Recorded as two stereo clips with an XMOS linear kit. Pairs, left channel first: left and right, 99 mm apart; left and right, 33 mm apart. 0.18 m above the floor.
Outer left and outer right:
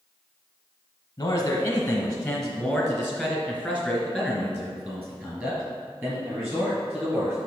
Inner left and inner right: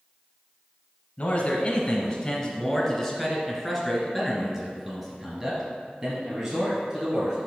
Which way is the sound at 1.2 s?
30° left (ahead or behind).